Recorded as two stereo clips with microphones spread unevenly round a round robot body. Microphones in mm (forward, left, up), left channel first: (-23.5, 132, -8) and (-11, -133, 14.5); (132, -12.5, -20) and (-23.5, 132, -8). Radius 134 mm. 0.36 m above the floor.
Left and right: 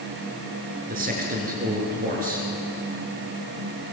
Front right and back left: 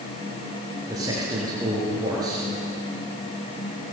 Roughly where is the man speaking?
Behind right.